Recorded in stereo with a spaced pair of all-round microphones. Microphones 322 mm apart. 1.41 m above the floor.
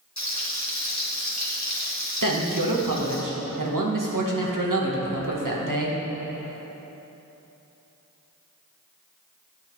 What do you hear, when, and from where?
0.2 s frying: 55° left (ahead or behind), 1.6 m
2.2 s a man speaking: 75° right (ahead or behind), 1.5 m